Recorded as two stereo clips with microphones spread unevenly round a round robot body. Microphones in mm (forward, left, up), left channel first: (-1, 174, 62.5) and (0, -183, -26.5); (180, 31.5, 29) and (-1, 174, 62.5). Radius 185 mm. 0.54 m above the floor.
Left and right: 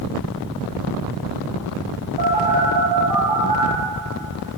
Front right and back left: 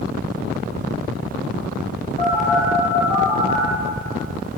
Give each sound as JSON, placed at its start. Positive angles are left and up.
{"t": 2.2, "sound": "a phone buzzing", "azimuth_deg": -110, "distance_m": 10.0}